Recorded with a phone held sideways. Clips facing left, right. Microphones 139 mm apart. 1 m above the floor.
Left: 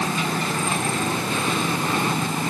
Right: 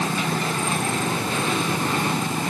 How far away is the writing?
No writing in this recording.